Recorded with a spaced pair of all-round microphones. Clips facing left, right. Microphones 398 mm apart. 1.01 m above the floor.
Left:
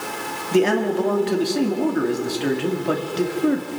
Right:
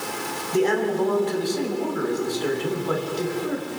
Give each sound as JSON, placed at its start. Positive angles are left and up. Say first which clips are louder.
{"t": 0.5, "sound": "a man speaking", "louder": "left 3 dB", "side_deg": 80, "distance_m": 2.0}